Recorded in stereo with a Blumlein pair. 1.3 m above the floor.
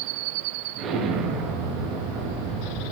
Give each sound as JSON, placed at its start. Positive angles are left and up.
{"t": 0.8, "sound": "an explosion", "azimuth_deg": -30, "distance_m": 9.0}